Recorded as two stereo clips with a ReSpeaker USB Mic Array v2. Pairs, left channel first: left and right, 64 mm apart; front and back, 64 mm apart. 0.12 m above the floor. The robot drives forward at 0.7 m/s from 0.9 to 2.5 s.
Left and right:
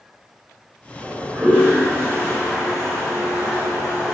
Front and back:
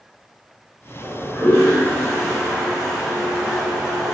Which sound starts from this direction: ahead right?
A toilet flushing, at 1.0 s.